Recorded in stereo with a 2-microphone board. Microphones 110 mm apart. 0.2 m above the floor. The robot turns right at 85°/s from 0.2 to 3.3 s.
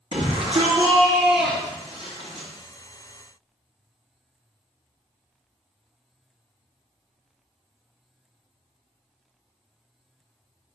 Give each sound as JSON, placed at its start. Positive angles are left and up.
{"t": 0.1, "sound": "a shout", "azimuth_deg": -100, "distance_m": 3.0}